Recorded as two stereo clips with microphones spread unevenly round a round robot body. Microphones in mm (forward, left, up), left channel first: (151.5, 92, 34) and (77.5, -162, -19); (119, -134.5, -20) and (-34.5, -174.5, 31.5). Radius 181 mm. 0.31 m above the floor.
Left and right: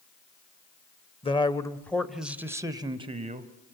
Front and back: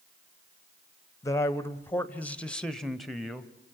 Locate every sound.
1.2 s a man speaking: straight ahead, 1.3 m; by 3.5 s 65° right, 1.7 m